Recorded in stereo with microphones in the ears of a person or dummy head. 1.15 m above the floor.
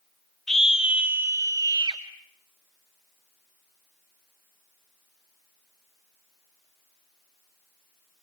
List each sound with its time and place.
0.5 s a scream: centre (ahead or behind), 2 m; by 2.0 s 25° right (ahead or behind), 2.5 m